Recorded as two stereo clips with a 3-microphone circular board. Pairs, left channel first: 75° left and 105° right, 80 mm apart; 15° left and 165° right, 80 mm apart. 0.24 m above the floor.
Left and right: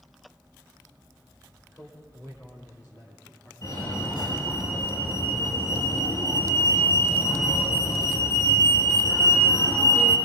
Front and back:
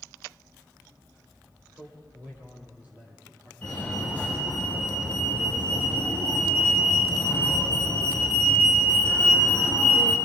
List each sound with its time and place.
1.7 s a man speaking: 135° left, 7 m; by 3.5 s 120° left, 9.5 m
3.6 s a fire alarm: 80° left, 6 m